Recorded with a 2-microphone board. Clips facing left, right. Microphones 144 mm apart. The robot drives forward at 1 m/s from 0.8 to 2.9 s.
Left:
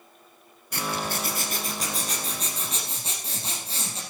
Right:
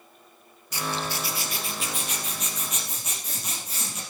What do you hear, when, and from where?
0.7 s a zipper: 55° left (ahead or behind), 2 m; by 4.0 s 30° left (ahead or behind), 3.5 m